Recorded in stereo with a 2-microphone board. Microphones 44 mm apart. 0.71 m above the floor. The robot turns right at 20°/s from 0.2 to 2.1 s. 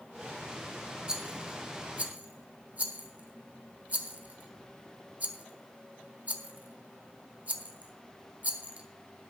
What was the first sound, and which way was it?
A rattle, 15° right (ahead or behind).